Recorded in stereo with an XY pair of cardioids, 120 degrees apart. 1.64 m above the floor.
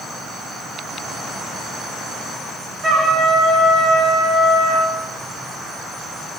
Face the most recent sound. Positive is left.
turn(degrees=-45)